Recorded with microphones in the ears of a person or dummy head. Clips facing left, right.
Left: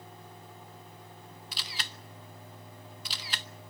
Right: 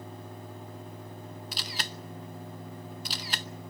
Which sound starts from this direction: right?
A camera shutter, at 1.5 s.